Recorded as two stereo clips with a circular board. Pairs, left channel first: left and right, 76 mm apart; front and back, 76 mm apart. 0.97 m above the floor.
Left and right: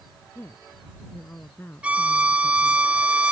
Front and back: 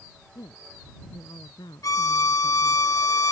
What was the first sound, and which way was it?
A woman speaking, 30° left.